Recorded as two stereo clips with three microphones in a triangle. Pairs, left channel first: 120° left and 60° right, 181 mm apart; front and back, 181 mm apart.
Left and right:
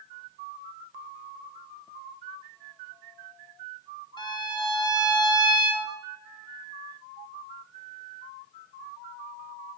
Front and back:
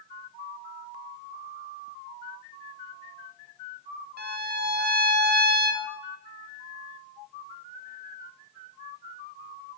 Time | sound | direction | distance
4.2 | a violin | straight behind | 0.6 m